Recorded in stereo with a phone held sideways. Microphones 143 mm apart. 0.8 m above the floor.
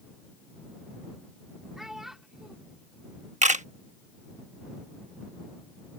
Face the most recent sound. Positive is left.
turn(degrees=-55)  # may be behind; listen again after turning